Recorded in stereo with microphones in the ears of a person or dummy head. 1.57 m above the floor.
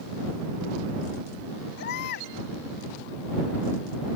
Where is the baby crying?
60° left (ahead or behind).